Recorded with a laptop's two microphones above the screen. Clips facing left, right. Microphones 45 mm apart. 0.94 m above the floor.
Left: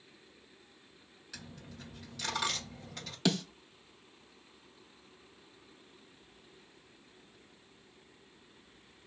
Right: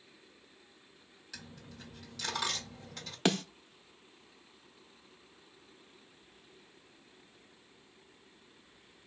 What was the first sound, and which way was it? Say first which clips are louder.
A dropped coin: left 1 dB; 5° left (ahead or behind).